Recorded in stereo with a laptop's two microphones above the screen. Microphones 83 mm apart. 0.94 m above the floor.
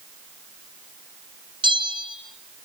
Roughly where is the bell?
Right.